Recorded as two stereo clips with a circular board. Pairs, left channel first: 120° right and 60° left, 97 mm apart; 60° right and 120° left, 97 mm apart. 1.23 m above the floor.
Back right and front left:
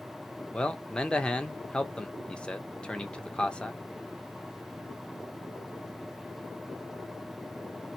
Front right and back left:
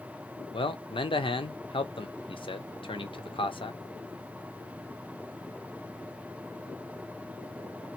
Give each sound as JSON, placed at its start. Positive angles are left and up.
{"t": 0.5, "sound": "a man speaking", "azimuth_deg": -40, "distance_m": 0.8}